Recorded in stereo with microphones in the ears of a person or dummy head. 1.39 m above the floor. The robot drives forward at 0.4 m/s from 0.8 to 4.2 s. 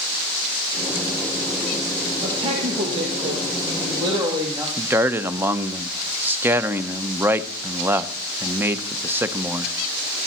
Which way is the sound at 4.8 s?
10° right (ahead or behind).